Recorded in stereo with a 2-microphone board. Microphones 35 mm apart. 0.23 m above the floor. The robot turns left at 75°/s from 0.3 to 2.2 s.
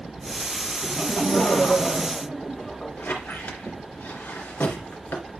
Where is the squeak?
70° left (ahead or behind), 2.5 m.